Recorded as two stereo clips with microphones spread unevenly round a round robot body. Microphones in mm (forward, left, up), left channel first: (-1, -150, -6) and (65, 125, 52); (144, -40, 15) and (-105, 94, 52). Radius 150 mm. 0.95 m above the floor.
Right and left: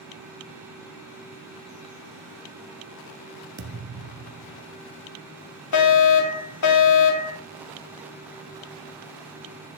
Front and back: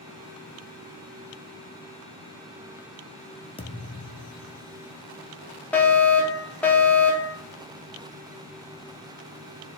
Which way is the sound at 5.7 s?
110° right.